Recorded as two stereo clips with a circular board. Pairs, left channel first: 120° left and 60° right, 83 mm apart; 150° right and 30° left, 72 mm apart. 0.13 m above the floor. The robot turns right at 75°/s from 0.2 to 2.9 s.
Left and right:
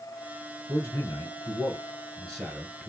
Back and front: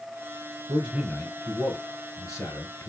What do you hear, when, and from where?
0.7 s a man speaking: 70° left, 1.4 m; by 2.9 s 125° right, 1.4 m